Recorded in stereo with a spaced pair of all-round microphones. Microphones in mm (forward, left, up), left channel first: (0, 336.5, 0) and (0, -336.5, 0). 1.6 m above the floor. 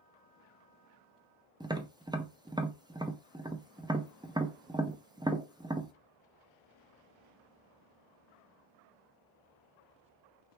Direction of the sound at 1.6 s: 5° right (ahead or behind).